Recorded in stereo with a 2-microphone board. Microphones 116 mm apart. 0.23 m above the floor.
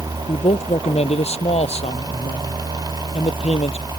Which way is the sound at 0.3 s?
65° left (ahead or behind).